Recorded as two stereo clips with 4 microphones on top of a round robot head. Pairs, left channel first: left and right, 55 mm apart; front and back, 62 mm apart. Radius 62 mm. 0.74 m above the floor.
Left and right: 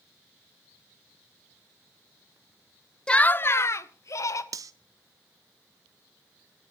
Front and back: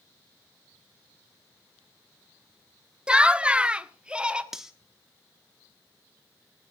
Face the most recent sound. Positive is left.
turn(degrees=-95)